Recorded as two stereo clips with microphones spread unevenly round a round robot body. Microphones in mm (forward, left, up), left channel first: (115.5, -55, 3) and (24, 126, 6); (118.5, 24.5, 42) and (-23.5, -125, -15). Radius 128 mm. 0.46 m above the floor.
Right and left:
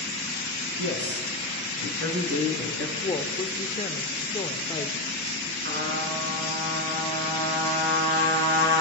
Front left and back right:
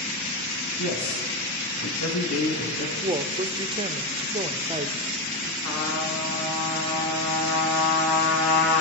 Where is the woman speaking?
125° right, 1.2 m.